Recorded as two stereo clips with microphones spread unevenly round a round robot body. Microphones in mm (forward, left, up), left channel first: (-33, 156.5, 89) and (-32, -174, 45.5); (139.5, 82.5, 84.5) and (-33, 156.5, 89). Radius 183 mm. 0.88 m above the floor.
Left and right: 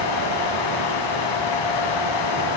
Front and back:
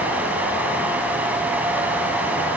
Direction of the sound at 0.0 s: 75° left.